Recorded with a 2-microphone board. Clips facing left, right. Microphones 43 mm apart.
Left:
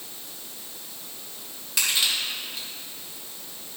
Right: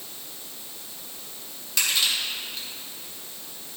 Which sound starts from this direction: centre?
Crushing, at 1.8 s.